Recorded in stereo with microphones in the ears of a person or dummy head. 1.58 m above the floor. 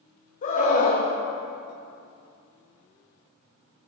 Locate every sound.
0.4 s a scream: 45° left (ahead or behind), 1.8 m